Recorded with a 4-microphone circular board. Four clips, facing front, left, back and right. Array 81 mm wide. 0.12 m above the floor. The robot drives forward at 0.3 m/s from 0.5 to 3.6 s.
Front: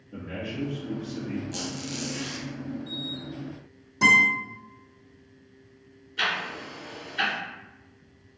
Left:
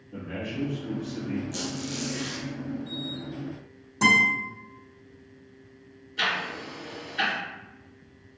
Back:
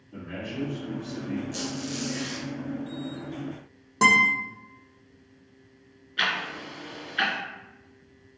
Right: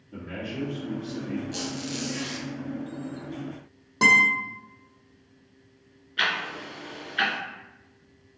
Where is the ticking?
135° right, 1.1 m.